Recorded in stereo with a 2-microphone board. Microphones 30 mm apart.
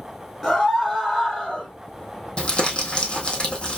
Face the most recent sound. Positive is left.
turn(degrees=35)  # may be behind; listen again after turning